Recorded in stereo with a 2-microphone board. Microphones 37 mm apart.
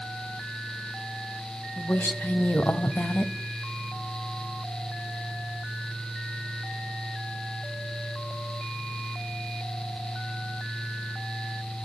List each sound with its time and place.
1.8 s a woman speaking: 60° left (ahead or behind), 2.5 m; by 3.3 s 55° left (ahead or behind), 2 m